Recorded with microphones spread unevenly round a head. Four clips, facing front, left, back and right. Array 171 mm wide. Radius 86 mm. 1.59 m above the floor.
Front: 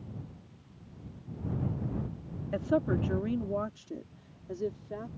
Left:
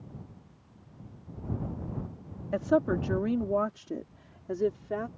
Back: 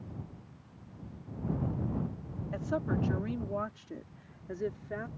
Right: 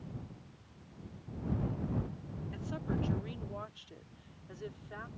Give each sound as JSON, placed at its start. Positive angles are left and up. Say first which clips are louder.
{"t": 2.5, "sound": "a woman speaking", "louder": "left 14 dB, front 5 dB", "azimuth_deg": 55}